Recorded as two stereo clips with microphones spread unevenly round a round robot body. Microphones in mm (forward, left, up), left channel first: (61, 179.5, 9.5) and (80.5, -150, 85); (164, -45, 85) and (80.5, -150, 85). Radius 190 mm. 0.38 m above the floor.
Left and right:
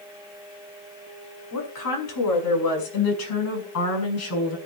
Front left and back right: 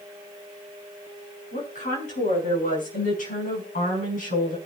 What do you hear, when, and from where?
1.5 s a woman speaking: 75° left, 5.5 m; by 4.6 s 55° left, 5.5 m